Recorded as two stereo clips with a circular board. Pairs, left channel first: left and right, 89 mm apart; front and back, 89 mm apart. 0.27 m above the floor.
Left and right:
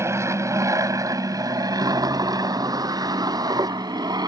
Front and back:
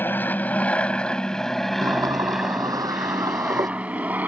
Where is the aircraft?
55° right; by 4.3 s 115° right.